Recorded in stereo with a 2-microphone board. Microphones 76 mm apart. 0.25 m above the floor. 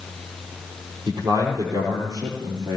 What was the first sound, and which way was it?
A man speaking, 60° right (ahead or behind).